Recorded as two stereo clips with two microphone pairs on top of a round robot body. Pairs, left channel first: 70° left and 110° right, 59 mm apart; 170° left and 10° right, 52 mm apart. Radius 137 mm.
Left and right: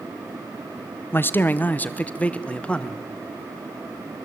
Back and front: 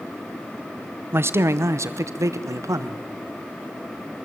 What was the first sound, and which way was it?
A man speaking, 25° left.